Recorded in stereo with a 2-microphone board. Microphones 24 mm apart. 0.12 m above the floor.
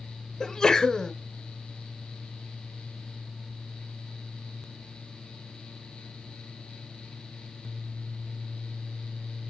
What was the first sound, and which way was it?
A sneeze, 25° left (ahead or behind).